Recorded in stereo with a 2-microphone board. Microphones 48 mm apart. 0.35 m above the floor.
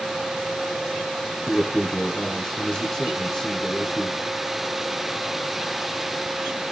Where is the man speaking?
15° left (ahead or behind), 5.5 m.